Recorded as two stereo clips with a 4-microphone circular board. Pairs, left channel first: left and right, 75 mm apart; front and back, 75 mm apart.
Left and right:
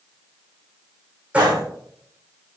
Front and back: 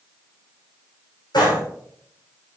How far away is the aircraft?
No aircraft in this recording.